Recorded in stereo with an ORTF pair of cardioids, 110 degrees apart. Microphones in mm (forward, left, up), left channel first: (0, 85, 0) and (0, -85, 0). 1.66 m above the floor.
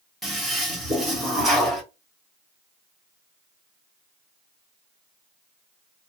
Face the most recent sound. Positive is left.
turn(degrees=0)